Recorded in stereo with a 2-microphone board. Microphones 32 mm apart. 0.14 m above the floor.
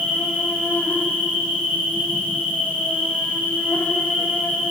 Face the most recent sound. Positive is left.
turn(degrees=80)